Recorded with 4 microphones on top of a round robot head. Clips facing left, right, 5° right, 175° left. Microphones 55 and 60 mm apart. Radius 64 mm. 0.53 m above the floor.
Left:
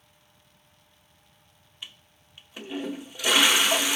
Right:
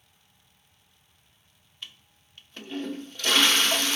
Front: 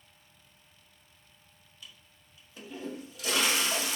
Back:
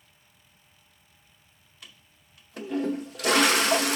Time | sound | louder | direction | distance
1.8 | a toilet flushing | even, back 2 dB | 170° left | 0.7 m